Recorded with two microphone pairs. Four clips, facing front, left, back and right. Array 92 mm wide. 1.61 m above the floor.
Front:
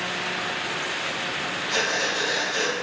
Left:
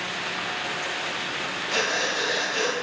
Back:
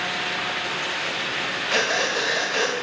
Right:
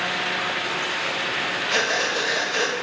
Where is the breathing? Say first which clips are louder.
Right 2 dB, back 3 dB; 150° right, 0.7 m.